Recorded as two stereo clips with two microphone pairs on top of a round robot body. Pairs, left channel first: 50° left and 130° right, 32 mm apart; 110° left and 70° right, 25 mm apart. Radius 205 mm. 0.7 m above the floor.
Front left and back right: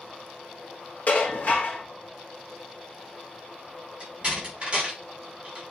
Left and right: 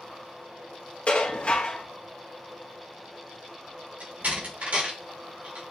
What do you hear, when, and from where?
1.1 s dishes clattering: 85° left, 1.2 m
4.0 s a door slam: 65° right, 2.5 m